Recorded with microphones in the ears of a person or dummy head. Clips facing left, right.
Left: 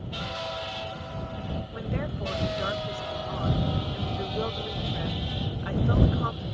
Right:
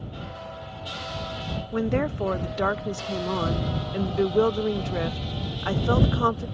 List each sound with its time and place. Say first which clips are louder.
1.7 s a woman speaking: right 12 dB; 65° right (ahead or behind)